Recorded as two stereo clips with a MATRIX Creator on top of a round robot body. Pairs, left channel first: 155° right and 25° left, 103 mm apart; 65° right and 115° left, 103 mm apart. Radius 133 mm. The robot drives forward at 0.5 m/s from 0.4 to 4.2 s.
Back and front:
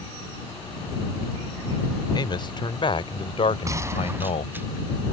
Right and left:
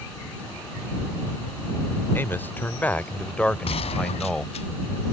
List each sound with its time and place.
2.1 s a man speaking: 130° right; by 4.5 s 150° right
3.6 s a gunshot: 35° right; by 4.7 s 50° right